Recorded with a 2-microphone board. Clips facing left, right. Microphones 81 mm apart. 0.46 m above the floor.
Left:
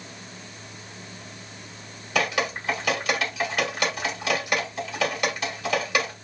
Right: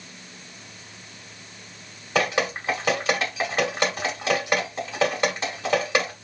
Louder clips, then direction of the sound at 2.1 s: Right 2 dB; 25° right (ahead or behind).